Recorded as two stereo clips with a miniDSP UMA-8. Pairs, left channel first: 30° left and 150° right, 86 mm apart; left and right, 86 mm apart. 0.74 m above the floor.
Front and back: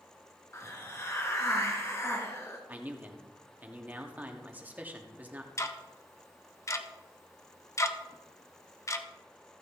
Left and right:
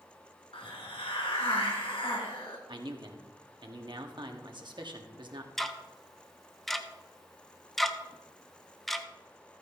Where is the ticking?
5° left, 0.7 m.